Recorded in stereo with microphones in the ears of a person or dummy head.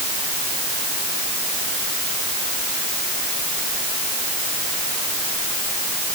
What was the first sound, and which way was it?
Only background noise.